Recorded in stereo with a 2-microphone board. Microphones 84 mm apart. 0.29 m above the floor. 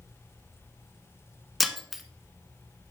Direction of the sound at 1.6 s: Centre (ahead or behind).